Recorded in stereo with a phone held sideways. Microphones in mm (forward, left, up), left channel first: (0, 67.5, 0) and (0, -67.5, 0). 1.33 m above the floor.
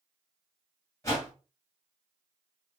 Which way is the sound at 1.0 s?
25° left (ahead or behind).